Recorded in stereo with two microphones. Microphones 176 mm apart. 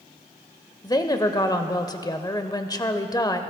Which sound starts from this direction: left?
A woman speaking, at 0.8 s.